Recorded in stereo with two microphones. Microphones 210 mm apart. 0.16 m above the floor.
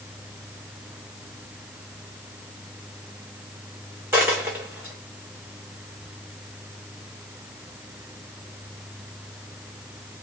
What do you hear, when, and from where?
4.1 s a dropped coin: 10° right (ahead or behind), 2 m